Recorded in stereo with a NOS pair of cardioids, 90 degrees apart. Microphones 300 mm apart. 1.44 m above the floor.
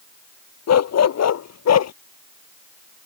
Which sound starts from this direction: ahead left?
A dog barking, at 0.7 s.